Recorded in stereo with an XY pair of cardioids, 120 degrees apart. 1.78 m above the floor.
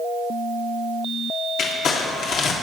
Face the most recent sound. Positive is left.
turn(degrees=60)